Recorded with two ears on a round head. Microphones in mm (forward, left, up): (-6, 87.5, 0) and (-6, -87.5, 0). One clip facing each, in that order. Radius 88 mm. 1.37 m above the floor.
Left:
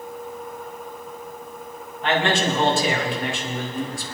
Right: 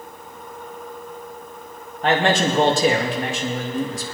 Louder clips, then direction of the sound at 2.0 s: Right 3 dB; 35° right (ahead or behind).